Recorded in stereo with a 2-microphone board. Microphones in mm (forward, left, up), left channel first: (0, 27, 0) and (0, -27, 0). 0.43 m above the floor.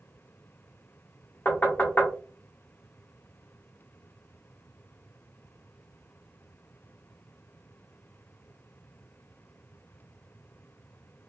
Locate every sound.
1.4 s knocking: 40° left (ahead or behind), 1.0 m